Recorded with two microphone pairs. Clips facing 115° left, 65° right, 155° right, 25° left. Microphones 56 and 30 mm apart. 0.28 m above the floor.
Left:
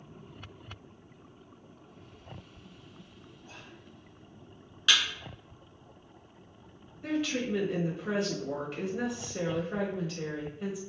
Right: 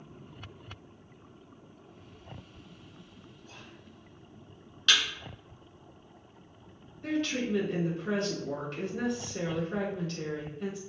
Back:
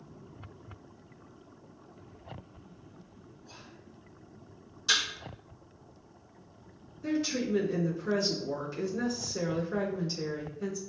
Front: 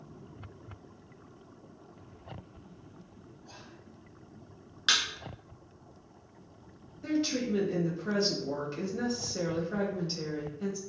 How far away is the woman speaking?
About 1.0 m.